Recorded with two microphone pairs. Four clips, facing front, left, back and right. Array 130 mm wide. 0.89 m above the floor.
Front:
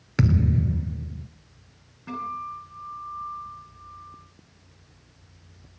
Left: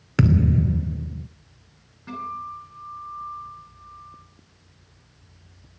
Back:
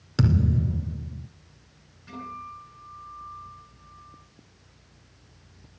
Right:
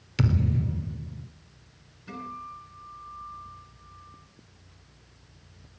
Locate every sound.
0.2 s a thud: 90° left, 1.5 m
2.1 s a guitar: 30° left, 9.5 m